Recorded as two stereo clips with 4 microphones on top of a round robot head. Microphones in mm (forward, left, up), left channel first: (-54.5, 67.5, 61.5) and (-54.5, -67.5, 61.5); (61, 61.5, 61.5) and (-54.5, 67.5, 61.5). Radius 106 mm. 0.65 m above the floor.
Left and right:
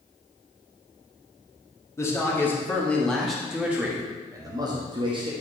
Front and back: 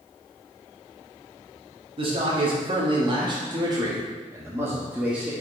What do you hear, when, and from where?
2.0 s a man speaking: 155° left, 1.9 m; by 5.3 s 105° right, 1.5 m